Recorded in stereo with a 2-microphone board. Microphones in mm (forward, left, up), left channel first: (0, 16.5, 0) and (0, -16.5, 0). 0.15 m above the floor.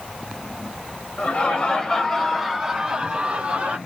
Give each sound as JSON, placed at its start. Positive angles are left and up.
{"t": 1.2, "sound": "laughter", "side_deg": 40, "distance_m": 1.3}